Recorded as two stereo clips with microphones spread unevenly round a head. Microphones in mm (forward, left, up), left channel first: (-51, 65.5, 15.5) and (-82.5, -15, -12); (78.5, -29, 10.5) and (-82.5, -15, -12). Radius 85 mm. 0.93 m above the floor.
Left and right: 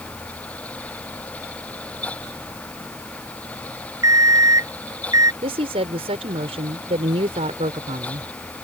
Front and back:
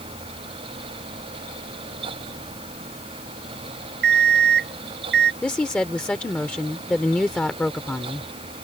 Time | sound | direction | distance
4.0 | an alarm clock | 160° right | ?
5.4 | a woman speaking | 90° right | ?